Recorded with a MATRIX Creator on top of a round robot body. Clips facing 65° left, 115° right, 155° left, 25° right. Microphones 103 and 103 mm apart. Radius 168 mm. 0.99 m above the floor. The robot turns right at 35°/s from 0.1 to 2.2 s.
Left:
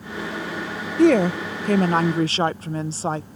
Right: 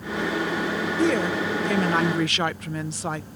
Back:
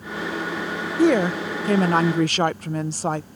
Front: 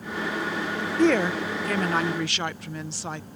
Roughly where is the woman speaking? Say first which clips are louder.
Left 8 dB, back 3 dB; left.